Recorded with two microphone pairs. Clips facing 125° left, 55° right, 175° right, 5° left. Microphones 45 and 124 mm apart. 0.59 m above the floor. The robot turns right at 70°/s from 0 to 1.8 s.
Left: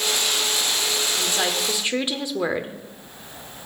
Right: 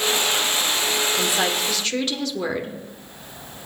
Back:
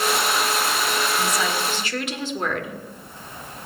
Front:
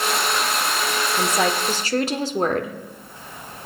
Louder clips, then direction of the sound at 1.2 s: Right 2 dB, front 3 dB; 10° left.